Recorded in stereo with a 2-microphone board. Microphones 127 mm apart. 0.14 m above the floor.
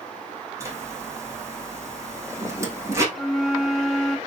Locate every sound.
0.6 s a zipper: 20° right (ahead or behind), 3.5 m
3.1 s a flute: centre (ahead or behind), 1.1 m